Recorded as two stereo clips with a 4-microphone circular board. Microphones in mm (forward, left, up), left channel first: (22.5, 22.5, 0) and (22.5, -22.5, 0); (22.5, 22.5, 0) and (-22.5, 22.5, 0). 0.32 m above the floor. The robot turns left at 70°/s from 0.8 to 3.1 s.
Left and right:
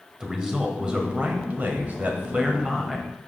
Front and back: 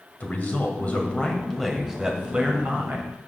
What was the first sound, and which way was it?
A man speaking, 25° right.